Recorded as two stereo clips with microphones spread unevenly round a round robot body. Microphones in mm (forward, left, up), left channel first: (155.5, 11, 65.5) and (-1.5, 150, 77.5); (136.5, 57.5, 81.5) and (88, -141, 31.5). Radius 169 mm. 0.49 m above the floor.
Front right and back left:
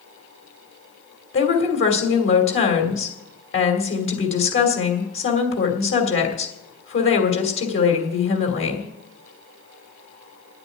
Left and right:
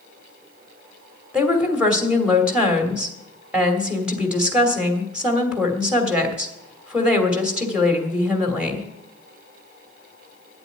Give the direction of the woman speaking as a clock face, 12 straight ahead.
1 o'clock.